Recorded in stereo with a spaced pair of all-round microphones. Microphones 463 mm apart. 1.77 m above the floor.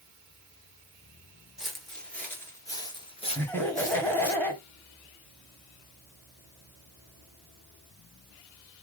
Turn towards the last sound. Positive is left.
turn(degrees=5)  # may be behind; listen again after turning